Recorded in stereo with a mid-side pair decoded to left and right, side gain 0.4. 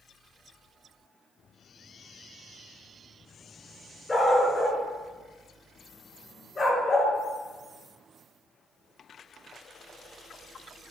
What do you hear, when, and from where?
4.1 s a dog barking: 25° left, 3.5 m; by 7.1 s 50° left, 3.5 m